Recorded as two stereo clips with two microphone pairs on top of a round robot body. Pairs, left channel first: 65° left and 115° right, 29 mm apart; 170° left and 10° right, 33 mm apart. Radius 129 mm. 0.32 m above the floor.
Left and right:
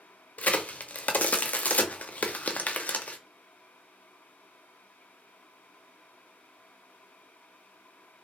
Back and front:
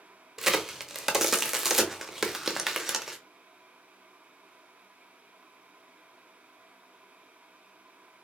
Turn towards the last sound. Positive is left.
turn(degrees=65)